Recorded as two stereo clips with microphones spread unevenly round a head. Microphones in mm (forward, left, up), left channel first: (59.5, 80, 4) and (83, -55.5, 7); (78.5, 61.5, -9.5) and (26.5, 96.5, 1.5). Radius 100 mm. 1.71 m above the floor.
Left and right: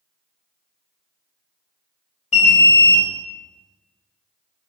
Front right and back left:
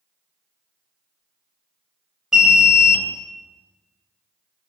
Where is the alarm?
65° left, 1.4 m.